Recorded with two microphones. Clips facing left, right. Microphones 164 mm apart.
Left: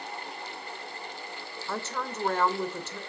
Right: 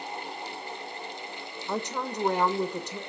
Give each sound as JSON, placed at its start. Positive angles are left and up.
{"t": 1.7, "sound": "a woman speaking", "side_deg": -15, "distance_m": 0.9}